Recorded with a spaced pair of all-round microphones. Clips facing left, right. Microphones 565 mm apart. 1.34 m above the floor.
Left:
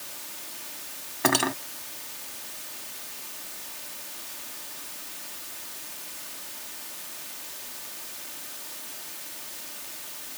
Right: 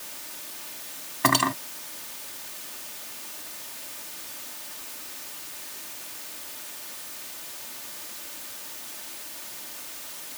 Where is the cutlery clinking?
25° right (ahead or behind).